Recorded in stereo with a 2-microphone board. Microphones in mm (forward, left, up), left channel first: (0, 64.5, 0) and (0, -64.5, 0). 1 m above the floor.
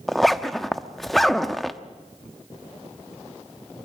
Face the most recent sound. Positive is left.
turn(degrees=0)  # may be behind; listen again after turning